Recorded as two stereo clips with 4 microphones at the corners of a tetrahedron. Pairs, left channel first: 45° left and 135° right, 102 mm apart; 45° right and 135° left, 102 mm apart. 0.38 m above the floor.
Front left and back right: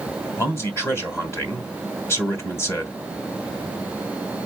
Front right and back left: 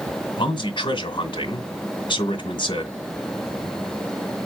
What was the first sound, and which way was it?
A man speaking, 20° right.